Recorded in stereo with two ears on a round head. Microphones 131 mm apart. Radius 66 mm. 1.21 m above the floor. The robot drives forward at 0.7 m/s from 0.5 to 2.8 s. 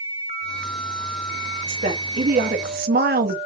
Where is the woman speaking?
50° right (ahead or behind), 2.5 m; by 3.4 s 65° right (ahead or behind), 2 m.